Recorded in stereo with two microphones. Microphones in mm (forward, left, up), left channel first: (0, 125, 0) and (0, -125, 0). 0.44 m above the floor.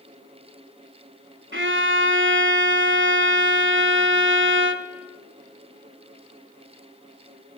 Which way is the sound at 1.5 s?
50° right (ahead or behind).